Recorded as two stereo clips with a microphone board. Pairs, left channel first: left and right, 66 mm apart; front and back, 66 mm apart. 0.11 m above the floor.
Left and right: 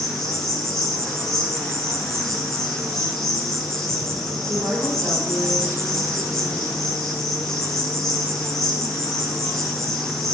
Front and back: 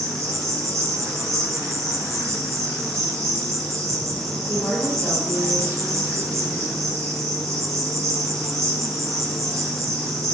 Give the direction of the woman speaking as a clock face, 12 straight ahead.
1 o'clock.